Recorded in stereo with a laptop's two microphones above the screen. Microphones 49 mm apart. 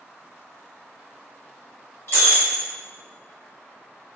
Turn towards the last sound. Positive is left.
turn(degrees=55)  # may be behind; listen again after turning